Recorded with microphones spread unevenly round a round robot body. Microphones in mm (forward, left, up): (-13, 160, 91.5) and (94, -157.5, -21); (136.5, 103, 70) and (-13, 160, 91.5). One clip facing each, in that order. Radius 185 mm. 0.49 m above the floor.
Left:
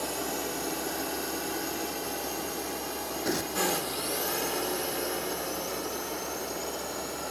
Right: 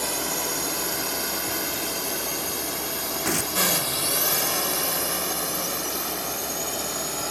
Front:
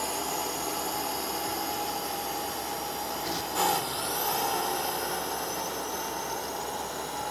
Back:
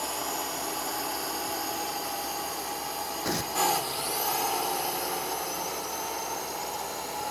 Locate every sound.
0.0 s a drone: 100° right; by 7.3 s 115° right
3.2 s tearing paper: 140° right